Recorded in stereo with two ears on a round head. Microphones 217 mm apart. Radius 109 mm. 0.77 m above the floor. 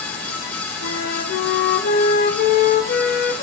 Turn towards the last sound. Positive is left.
turn(degrees=40)  # may be behind; listen again after turning